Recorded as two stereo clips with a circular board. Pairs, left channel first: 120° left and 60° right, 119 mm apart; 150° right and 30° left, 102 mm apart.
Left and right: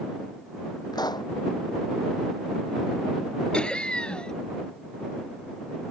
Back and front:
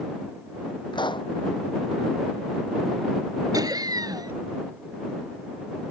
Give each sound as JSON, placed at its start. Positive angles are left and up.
{"t": 0.9, "sound": "a pop", "azimuth_deg": 175}
{"t": 3.5, "sound": "laughter", "azimuth_deg": 45}